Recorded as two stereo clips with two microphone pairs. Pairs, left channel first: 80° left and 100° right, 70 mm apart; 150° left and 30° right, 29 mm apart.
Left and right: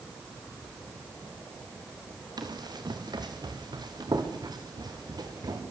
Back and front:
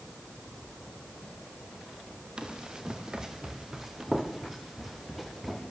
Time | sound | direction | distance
2.4 | running footsteps | 90° right | 3 m